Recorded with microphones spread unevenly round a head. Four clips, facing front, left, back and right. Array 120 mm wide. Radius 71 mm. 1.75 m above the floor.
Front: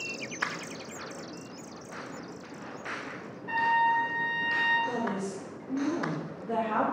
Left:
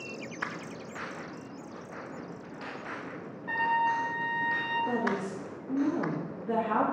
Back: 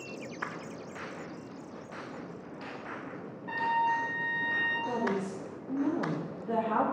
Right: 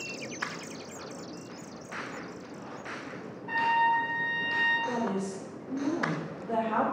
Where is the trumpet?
75° left, 1.1 m.